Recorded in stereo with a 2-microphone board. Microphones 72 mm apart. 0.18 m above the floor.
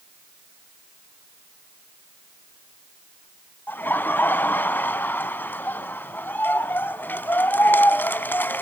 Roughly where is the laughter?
Left.